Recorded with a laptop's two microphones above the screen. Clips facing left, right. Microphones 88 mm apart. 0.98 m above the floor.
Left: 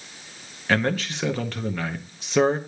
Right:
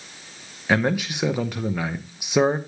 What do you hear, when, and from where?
0.7 s a man speaking: 15° right (ahead or behind), 0.7 m